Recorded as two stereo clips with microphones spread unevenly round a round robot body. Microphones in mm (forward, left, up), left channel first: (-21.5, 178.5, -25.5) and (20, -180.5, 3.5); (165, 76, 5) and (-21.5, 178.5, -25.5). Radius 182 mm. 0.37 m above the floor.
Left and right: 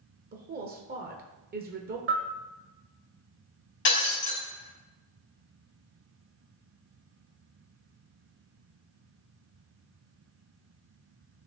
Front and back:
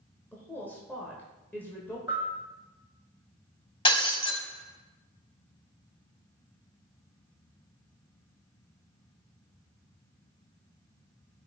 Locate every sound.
0.3 s a woman speaking: 120° right, 0.9 m
2.1 s a bell: 135° right, 1.4 m
3.9 s breaking glass: 35° left, 3.5 m